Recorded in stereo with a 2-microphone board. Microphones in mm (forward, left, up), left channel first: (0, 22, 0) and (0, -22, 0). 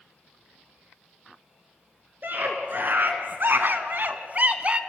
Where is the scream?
45° right (ahead or behind), 3 m; by 4.8 s 25° right (ahead or behind), 1.7 m.